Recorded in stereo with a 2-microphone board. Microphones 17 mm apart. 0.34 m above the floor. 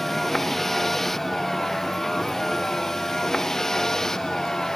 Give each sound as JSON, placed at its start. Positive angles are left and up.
{"t": 0.0, "sound": "a vehicle", "side_deg": 20}